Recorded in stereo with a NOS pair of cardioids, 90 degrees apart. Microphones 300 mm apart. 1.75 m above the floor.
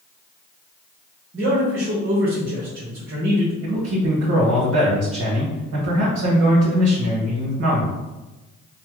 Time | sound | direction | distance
1.3 | a man speaking | 40° right | 1.2 m
3.6 | a man speaking | 55° right | 1.3 m